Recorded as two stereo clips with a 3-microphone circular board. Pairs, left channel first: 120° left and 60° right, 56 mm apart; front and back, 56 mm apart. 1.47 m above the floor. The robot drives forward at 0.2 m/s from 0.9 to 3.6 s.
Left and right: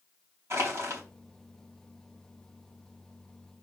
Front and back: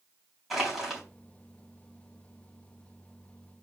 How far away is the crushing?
About 3.5 m.